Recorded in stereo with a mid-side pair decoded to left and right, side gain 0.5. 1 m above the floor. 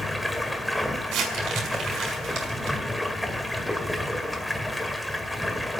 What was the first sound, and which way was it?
Running water, 5° left.